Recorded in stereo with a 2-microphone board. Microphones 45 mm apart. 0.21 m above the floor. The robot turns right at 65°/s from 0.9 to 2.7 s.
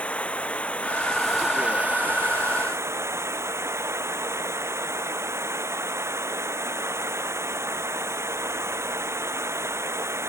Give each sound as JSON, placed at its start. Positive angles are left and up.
{"t": 0.0, "sound": "running water", "azimuth_deg": 155}